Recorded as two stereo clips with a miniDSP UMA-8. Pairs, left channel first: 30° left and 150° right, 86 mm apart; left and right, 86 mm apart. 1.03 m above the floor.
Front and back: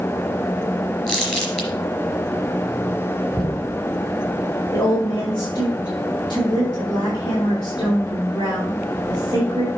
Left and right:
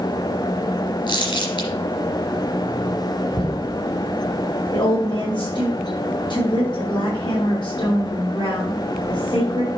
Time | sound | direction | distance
1.1 | crumpling | 115° left | 3.5 m
3.3 | knocking | 110° left | 4 m
4.7 | a woman speaking | 80° left | 4 m